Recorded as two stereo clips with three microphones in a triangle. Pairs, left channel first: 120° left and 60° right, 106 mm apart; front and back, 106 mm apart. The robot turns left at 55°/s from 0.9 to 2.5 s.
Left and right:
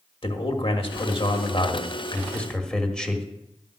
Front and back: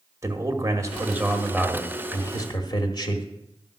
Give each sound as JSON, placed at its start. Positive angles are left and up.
{"t": 0.2, "sound": "a man speaking", "azimuth_deg": 125, "distance_m": 1.5}